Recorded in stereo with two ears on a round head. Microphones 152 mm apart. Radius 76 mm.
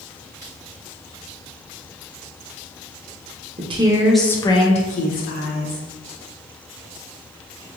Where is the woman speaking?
35° right (ahead or behind), 0.5 m; by 5.9 s 65° left (ahead or behind), 1.1 m.